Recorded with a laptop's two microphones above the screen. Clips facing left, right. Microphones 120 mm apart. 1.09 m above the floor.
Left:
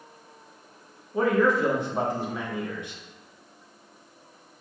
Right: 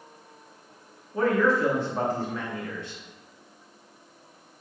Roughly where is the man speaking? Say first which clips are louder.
Left 1 dB; centre.